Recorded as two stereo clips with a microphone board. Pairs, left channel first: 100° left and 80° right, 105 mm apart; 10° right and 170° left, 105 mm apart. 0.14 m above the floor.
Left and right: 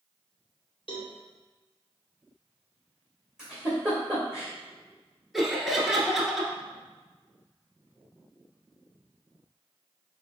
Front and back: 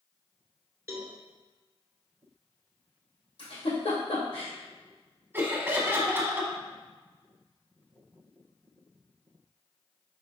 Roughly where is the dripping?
I don't hear dripping.